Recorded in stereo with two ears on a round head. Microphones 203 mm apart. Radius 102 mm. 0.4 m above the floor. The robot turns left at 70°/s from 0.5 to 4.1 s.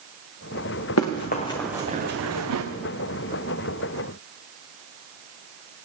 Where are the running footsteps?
75° left (ahead or behind), 1.9 m; by 2.6 s 70° right (ahead or behind), 1.8 m.